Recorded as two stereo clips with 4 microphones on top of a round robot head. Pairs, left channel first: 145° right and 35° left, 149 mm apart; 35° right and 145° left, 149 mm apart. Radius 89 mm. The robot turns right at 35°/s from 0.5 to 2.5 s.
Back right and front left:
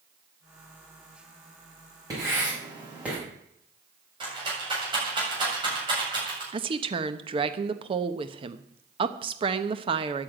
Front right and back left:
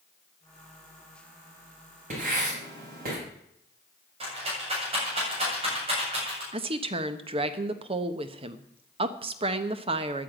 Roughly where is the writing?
Left.